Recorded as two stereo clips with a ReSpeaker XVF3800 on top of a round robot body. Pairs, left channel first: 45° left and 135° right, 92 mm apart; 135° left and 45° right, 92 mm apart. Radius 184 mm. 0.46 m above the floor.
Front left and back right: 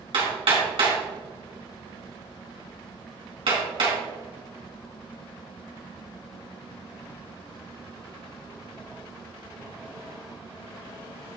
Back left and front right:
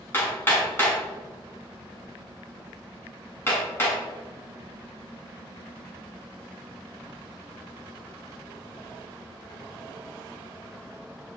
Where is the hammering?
160° right, 3.5 m.